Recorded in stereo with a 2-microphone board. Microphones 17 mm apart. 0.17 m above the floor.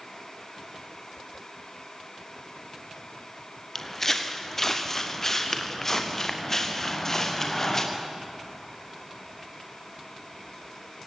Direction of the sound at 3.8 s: 10° left (ahead or behind).